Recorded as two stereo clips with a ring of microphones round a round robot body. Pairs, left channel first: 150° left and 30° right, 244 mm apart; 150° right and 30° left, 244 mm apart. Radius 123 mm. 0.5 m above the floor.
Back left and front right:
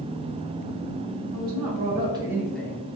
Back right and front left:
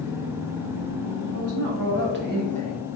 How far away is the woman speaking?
About 1.6 m.